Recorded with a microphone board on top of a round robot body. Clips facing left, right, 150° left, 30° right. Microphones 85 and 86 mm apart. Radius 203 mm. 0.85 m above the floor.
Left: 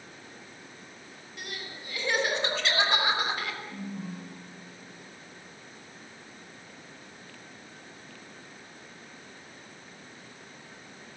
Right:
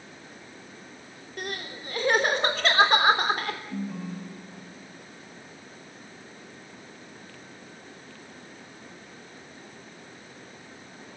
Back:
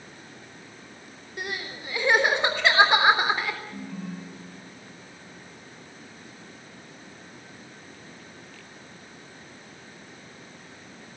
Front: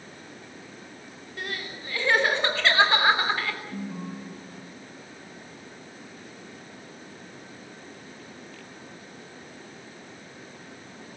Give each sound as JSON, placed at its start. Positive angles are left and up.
{"t": 1.4, "sound": "crying", "azimuth_deg": -135, "distance_m": 3.5}
{"t": 3.7, "sound": "a ringtone", "azimuth_deg": -95, "distance_m": 6.5}